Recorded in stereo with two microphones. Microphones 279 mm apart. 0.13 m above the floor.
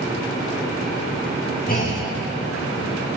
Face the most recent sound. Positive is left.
turn(degrees=30)  # may be behind; listen again after turning